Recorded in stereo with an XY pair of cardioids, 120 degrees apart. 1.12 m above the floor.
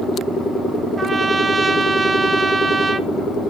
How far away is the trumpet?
About 0.7 m.